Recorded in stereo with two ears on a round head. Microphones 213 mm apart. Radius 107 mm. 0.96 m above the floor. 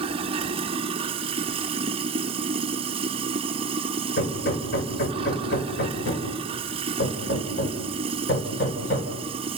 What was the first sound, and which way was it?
Running water, 25° right (ahead or behind).